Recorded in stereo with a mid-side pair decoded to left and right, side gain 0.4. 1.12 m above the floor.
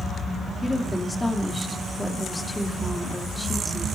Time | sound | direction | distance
0.6 | a woman speaking | 20° left | 1.9 m